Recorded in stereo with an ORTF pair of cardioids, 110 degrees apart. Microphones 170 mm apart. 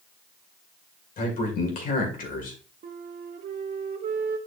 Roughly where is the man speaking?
Ahead left.